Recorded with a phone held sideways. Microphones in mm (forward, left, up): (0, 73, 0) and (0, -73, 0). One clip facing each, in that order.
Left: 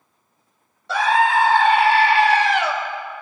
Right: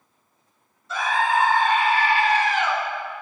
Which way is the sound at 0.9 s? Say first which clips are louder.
Left 5 dB; 80° left.